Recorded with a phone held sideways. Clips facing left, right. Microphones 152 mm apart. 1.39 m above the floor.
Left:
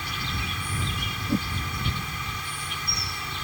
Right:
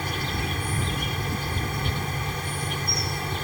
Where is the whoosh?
65° left (ahead or behind).